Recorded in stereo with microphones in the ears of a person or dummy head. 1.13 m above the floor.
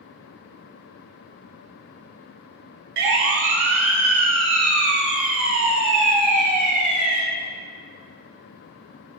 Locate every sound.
3.0 s a siren: 70° right (ahead or behind), 2.5 m; by 7.2 s 40° right (ahead or behind), 3.5 m